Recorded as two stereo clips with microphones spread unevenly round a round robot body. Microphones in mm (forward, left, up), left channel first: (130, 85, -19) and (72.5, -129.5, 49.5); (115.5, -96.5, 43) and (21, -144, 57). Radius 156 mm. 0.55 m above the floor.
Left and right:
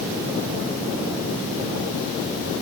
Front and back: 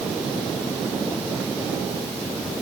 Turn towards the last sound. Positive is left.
No sound to turn to.